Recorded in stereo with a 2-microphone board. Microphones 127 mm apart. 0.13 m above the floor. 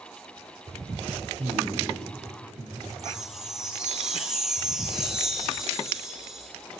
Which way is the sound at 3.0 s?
5° right (ahead or behind).